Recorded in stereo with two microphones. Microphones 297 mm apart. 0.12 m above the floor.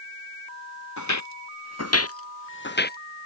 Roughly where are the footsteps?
Left.